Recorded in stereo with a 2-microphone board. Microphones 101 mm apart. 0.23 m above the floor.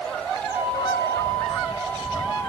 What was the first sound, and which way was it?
A flute, 45° left (ahead or behind).